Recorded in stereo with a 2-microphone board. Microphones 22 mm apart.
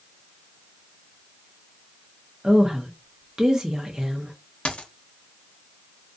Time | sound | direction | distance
2.4 | a woman speaking | 25° right (ahead or behind) | 0.8 m
4.7 | a dropped coin | 60° left (ahead or behind) | 0.6 m